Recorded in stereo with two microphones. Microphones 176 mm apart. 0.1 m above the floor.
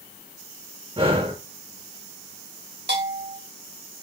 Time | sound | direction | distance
1.0 | breathing | 30° right (ahead or behind) | 2.5 m
2.9 | a bell | 85° right | 5 m